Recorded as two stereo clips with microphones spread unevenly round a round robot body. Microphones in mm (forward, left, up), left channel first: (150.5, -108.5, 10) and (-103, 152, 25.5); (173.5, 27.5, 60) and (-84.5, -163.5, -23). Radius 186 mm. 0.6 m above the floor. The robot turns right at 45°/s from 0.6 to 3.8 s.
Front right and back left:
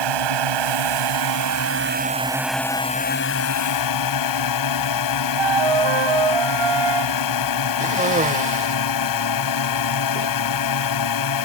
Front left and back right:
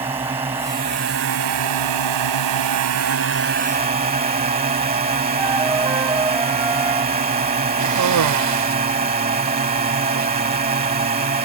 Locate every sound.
0.0 s a drone: 140° left; by 11.4 s 80° right
5.4 s a flute: 130° left
7.8 s a cough: 155° right